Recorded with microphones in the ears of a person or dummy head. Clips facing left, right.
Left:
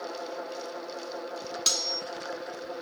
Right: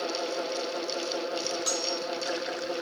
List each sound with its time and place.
1.7 s cutlery clinking: 35° left (ahead or behind), 0.6 m